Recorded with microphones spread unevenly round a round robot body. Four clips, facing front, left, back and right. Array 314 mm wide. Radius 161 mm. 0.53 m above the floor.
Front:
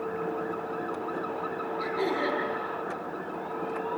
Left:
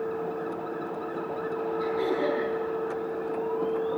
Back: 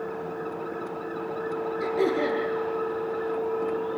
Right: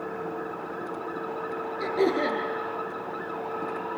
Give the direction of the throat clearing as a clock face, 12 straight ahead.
4 o'clock.